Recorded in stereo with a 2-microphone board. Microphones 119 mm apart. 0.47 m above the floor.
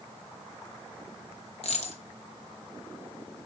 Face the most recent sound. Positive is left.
turn(degrees=65)  # may be behind; listen again after turning